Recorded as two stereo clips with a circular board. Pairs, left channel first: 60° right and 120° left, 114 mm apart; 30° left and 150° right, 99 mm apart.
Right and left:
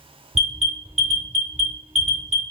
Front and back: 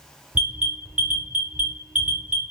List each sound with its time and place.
0.3 s an alarm: 135° left, 1.3 m